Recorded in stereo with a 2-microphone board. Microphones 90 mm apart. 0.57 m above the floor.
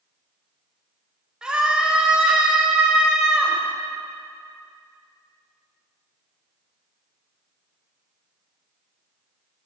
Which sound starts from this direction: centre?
A scream, at 1.4 s.